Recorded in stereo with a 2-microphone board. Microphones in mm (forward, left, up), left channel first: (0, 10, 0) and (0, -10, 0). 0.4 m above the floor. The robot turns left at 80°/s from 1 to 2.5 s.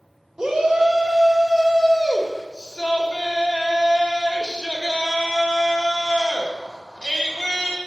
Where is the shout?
125° right, 1.7 m; by 7.8 s 115° left, 1.7 m.